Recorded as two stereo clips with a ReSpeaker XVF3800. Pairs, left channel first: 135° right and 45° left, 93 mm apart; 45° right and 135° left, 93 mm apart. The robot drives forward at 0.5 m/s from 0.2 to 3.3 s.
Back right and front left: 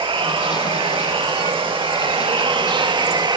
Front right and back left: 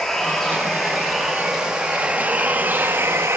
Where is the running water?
40° left, 2.5 m; by 3.4 s 75° left, 1.8 m.